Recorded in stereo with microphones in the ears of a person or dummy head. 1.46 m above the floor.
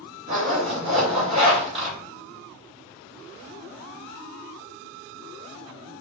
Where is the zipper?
30° right (ahead or behind), 1.2 m.